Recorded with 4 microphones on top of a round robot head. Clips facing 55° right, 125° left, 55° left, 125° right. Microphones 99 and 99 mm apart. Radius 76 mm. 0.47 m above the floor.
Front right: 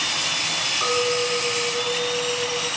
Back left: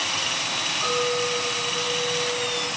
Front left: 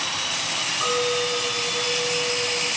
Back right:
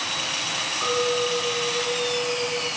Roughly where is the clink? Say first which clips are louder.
Front right 2 dB, even; ahead.